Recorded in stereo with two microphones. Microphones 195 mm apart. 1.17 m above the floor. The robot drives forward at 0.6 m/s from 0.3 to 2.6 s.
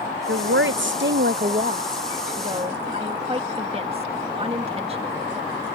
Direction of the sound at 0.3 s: 80° right.